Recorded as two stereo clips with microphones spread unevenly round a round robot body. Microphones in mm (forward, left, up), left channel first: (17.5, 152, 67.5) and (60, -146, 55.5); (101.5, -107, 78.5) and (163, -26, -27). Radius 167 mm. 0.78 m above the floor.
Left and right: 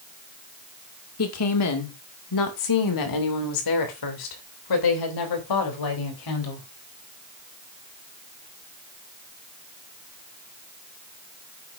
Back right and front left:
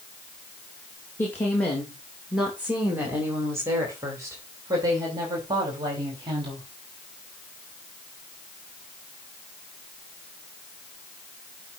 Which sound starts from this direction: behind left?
A woman speaking, at 1.2 s.